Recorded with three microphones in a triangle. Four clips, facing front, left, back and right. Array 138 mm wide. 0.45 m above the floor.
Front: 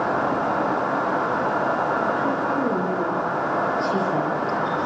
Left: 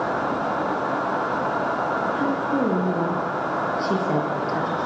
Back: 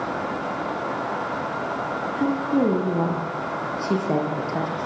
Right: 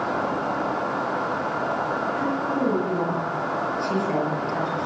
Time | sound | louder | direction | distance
2.1 | a woman speaking | left 2 dB, back 1 dB | 160° left | 10 m